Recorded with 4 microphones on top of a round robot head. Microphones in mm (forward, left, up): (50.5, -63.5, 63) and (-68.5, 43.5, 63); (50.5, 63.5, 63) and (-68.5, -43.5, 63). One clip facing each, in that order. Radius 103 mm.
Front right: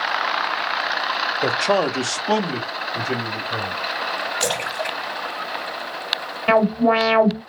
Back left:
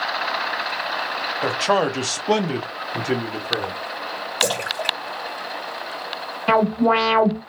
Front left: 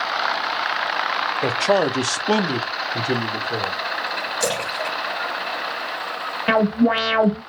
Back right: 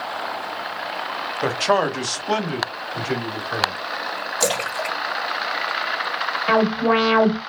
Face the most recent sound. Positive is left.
turn(degrees=45)